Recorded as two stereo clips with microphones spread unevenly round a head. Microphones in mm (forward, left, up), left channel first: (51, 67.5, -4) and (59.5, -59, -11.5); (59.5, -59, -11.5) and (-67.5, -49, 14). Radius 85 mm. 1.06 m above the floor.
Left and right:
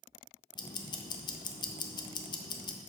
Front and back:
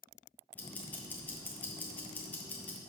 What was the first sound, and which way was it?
Ticking, 55° left.